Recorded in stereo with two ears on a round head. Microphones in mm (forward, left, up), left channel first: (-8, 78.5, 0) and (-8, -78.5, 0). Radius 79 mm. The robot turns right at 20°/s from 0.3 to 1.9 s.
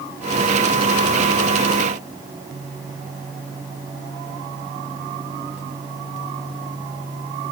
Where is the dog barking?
No dog barking in this recording.